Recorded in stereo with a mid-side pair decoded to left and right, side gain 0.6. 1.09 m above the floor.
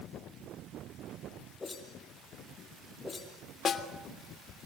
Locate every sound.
1.6 s a whoosh: 20° left, 6 m
3.6 s a snare drum: 40° left, 3 m